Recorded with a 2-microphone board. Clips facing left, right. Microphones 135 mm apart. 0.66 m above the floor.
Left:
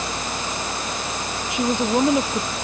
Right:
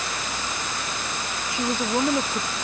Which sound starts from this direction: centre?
A woman speaking, at 1.5 s.